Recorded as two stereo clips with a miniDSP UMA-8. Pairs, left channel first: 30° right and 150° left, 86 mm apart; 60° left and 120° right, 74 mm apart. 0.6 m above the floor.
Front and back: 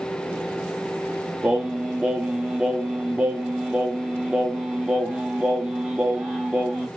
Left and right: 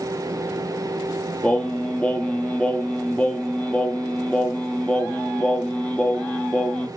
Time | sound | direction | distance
1.4 | singing | 100° left | 0.7 m